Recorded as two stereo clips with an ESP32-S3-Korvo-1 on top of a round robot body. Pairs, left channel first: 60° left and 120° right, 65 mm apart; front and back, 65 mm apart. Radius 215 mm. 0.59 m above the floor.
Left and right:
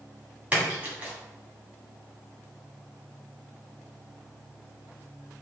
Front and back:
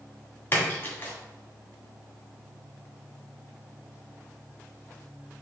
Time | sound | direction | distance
0.5 | a splash | 60° right | 1.7 m